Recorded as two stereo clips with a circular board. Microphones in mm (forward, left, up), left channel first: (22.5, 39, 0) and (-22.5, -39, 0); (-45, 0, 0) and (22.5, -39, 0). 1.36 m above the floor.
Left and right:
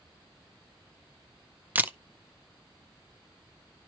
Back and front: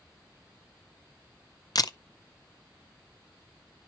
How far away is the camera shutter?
About 0.5 m.